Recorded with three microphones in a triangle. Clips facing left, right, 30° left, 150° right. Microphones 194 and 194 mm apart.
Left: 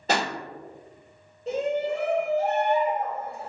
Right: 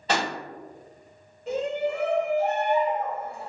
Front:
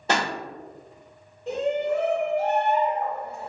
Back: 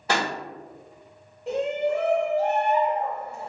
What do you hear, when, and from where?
0.1 s a pop: 85° left, 1.6 m
1.5 s a shout: 135° left, 1.6 m